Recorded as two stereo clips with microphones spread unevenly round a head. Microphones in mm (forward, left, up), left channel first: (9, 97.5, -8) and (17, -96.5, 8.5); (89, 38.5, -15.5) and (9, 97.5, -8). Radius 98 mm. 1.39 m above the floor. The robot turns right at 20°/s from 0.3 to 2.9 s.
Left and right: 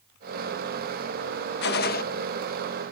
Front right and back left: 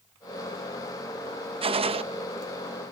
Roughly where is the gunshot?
Behind left.